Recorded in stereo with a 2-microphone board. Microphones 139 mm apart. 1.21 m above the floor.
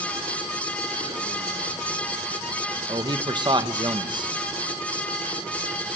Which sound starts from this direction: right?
A man speaking, at 2.9 s.